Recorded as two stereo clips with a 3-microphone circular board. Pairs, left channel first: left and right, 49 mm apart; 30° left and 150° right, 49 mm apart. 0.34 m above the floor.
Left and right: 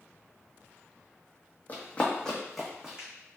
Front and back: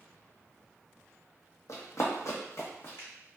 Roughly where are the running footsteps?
Ahead left.